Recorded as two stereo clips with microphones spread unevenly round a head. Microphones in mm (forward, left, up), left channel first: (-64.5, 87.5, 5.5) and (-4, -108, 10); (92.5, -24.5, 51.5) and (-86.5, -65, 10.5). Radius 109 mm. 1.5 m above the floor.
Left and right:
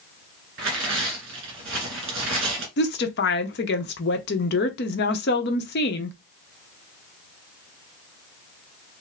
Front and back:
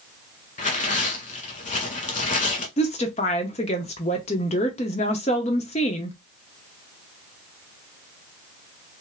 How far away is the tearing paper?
About 1.7 m.